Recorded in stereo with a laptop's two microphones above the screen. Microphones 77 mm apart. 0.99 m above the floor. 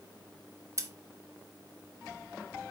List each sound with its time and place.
0.8 s scissors: 35° right (ahead or behind), 0.7 m